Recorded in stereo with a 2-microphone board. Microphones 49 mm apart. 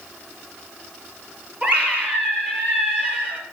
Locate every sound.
1.6 s a scream: 30° right (ahead or behind), 2.5 m